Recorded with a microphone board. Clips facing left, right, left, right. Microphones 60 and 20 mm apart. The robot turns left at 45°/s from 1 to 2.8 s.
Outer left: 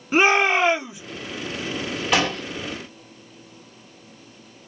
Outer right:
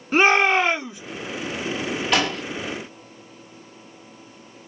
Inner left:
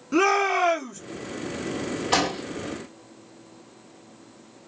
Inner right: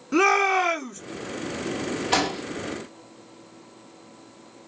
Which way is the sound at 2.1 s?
5° left (ahead or behind).